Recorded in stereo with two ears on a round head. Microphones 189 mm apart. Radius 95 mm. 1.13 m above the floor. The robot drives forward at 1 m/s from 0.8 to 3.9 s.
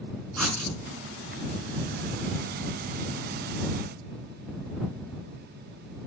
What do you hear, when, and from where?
0.4 s writing: centre (ahead or behind), 5 m